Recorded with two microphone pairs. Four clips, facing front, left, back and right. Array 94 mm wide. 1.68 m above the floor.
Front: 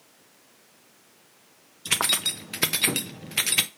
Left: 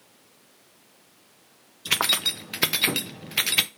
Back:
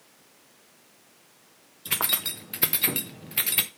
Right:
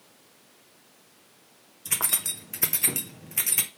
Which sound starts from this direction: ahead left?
Keys jangling, at 1.9 s.